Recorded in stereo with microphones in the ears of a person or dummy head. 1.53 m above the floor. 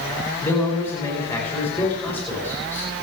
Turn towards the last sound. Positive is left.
turn(degrees=10)  # may be behind; listen again after turning